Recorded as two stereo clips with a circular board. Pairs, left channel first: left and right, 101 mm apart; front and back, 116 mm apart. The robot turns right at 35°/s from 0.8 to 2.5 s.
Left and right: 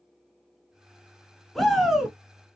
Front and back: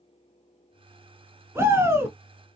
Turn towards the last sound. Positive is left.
turn(degrees=-150)